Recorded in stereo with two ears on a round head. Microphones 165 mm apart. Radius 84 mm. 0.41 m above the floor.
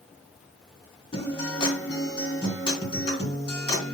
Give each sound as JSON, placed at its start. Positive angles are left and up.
{"t": 1.1, "sound": "a guitar", "side_deg": 30, "distance_m": 3.0}